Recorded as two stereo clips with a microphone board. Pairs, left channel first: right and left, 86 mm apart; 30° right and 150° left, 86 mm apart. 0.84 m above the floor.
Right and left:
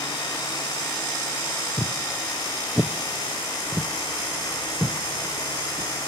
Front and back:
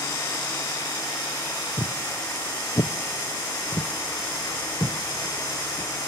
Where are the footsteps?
60° right, 1.0 m; by 5.9 s 30° left, 2 m.